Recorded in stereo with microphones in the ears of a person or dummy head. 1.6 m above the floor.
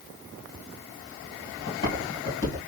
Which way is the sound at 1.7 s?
30° left (ahead or behind).